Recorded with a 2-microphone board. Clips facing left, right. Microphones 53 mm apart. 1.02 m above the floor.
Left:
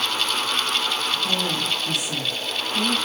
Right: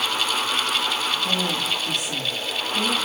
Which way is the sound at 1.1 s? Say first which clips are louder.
Even; 10° left (ahead or behind).